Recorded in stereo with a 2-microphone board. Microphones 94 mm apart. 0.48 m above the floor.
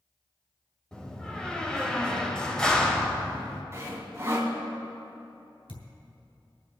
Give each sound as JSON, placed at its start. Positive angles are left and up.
{"t": 0.9, "sound": "a door slam", "side_deg": 5, "distance_m": 1.8}
{"t": 3.7, "sound": "sawing", "side_deg": -30, "distance_m": 1.9}
{"t": 5.7, "sound": "a thud", "side_deg": 70, "distance_m": 2.5}